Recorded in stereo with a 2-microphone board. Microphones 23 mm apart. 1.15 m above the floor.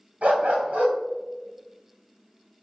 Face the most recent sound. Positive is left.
turn(degrees=-80)